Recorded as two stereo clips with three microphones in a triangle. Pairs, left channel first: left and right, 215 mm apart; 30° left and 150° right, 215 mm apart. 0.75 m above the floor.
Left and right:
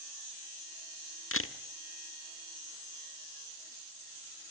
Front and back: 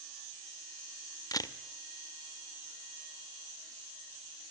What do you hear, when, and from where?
1.3 s a camera shutter: 100° left, 1.3 m